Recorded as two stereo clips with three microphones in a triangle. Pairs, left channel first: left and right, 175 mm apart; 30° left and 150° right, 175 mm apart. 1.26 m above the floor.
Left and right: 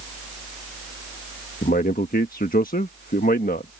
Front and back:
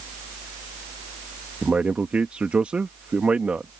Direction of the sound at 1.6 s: 125° left.